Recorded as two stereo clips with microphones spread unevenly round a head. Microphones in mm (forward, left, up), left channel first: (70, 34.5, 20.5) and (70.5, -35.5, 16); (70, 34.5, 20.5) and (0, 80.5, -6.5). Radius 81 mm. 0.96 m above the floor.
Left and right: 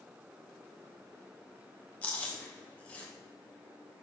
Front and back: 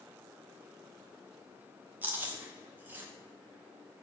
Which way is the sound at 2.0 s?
160° left.